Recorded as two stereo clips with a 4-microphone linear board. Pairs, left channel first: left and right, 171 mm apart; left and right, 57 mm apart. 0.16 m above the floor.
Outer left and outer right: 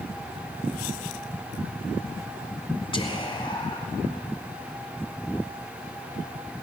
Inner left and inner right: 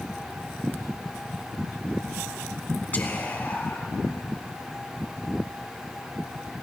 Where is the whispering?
30° left (ahead or behind), 1.3 m.